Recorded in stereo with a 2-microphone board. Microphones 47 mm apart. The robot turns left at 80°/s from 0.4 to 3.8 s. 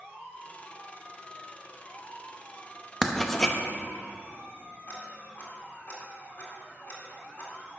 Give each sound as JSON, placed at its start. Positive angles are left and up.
{"t": 3.0, "sound": "writing", "side_deg": -5, "distance_m": 0.7}
{"t": 4.9, "sound": "ticking", "side_deg": 40, "distance_m": 2.0}